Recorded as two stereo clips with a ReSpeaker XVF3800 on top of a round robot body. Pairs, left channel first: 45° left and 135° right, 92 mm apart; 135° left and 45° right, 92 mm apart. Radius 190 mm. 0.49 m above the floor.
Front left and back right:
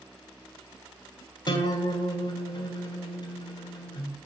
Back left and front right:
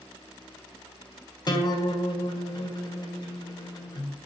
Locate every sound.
1.5 s a guitar: 90° left, 2.5 m